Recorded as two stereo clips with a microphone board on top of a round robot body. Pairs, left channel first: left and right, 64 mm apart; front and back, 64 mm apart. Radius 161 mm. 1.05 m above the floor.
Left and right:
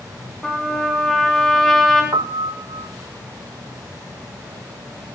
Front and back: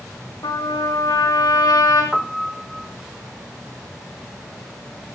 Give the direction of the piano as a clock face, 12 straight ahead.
3 o'clock.